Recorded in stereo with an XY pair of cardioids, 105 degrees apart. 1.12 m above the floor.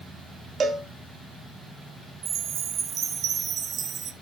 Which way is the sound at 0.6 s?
45° right.